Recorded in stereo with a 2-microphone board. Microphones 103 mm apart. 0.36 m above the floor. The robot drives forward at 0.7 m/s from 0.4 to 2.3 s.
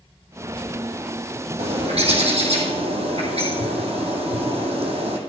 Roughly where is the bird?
Right.